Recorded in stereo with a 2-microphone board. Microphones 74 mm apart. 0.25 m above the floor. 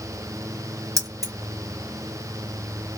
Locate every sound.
1.0 s keys jangling: 50° right (ahead or behind), 1.7 m